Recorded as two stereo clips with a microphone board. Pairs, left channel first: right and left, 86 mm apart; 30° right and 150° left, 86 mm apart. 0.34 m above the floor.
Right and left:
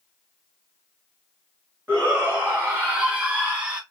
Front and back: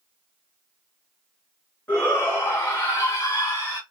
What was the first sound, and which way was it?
A shout, 30° left.